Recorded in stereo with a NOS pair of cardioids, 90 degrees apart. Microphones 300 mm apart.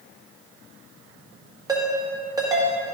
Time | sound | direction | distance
1.7 | a ringtone | 10° right | 1.9 m